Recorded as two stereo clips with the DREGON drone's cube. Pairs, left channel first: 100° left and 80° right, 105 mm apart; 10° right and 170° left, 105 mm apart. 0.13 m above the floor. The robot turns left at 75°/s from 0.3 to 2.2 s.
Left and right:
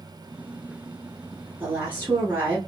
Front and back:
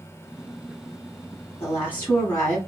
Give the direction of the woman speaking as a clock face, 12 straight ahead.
1 o'clock.